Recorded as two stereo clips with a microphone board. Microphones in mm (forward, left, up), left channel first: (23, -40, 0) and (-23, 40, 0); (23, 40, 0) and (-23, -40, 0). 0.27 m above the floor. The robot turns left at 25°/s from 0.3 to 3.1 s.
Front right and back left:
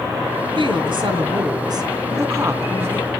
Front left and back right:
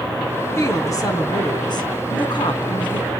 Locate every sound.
0.6 s a woman speaking: 115° left, 3 m; by 3.1 s 50° left, 3 m